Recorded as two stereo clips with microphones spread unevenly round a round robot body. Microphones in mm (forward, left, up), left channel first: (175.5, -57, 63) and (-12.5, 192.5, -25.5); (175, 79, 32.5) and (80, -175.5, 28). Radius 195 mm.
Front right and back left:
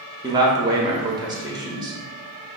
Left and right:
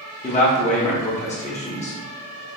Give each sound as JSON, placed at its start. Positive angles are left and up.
{"t": 0.2, "sound": "a man speaking", "azimuth_deg": 110, "distance_m": 0.8}